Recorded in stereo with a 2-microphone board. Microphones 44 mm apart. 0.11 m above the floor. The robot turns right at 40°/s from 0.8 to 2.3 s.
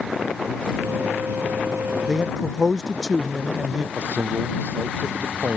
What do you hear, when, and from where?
2.1 s a man speaking: centre (ahead or behind); by 3.9 s 10° right (ahead or behind)
4.0 s a man speaking: 50° right (ahead or behind)